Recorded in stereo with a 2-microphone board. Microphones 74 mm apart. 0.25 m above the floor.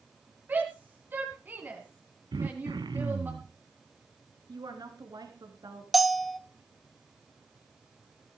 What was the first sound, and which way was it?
A shout, 30° right (ahead or behind).